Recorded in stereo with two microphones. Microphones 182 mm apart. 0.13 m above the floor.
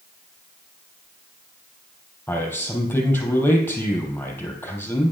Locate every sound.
2.3 s a man speaking: 10° left (ahead or behind), 3.5 m